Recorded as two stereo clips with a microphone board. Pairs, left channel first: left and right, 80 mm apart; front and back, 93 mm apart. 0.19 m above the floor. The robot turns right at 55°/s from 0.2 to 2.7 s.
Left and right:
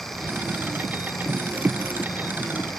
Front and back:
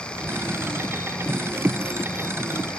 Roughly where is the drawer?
I don't hear a drawer.